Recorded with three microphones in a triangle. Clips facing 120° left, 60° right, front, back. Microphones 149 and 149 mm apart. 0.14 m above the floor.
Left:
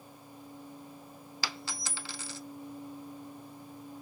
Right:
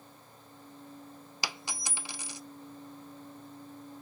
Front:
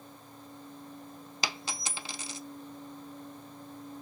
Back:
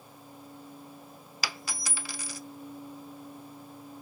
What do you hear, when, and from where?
1.4 s a dropped coin: 15° right, 0.5 m